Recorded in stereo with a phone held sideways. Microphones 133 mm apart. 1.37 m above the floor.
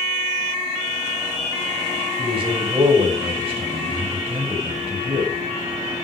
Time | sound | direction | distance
2.2 | a man speaking | 45° right (ahead or behind) | 7.5 m